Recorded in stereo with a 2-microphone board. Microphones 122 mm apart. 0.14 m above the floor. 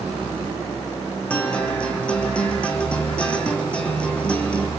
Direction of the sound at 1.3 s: 10° left (ahead or behind).